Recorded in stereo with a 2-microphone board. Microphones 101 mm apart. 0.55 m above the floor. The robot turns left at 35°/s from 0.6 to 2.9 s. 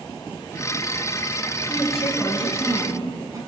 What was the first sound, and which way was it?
A woman speaking, 5° left.